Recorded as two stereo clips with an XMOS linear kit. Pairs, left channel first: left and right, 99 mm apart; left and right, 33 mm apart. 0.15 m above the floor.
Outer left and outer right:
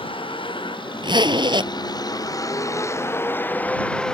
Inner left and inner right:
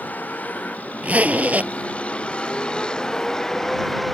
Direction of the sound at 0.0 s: 60° left (ahead or behind).